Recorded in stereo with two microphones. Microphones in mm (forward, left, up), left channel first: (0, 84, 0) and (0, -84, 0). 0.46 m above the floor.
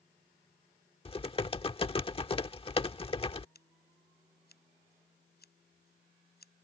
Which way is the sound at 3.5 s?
65° left (ahead or behind).